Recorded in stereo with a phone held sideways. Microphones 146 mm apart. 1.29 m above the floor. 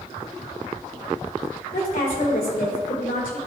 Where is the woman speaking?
70° left (ahead or behind), 3 m.